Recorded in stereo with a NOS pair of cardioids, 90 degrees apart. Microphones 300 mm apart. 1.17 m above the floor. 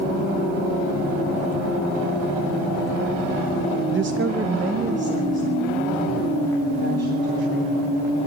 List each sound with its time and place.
3.9 s a woman speaking: 45° right, 0.6 m; by 8.0 s 35° right, 7 m